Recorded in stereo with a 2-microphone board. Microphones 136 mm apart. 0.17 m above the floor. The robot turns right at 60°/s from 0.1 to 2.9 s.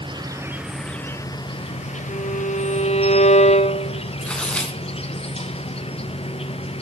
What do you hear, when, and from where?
0.0 s an insect: 40° right, 1.2 m; by 6.8 s 125° left, 1.2 m
2.1 s a violin: 65° left, 2.0 m; by 4.0 s 115° left, 2.0 m
4.2 s tearing paper: 10° left (ahead or behind), 1.9 m